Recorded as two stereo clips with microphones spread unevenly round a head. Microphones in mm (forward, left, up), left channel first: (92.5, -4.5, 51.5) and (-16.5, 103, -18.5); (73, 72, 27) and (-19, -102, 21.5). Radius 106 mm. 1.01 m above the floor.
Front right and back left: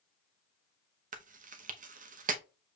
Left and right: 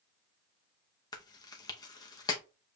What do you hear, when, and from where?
1.1 s chewing: 135° left, 0.7 m